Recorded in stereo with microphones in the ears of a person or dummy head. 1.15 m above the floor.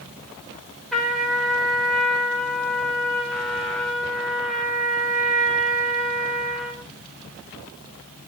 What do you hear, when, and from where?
0.9 s a trumpet: centre (ahead or behind), 1.0 m